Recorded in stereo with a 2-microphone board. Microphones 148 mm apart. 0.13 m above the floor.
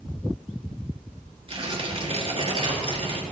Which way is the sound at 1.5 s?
40° right (ahead or behind).